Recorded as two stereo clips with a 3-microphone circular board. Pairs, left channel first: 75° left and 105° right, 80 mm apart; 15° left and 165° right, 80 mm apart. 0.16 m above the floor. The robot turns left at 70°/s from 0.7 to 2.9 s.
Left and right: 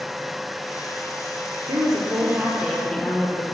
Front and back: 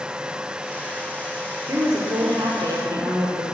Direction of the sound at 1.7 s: 115° right.